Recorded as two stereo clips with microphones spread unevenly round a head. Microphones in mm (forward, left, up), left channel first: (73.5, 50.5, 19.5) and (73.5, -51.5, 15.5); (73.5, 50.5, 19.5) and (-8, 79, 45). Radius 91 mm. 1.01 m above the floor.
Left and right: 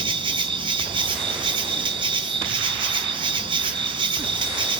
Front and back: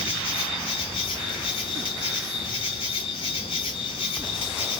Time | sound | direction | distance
0.0 | an insect | 50° right | 0.8 m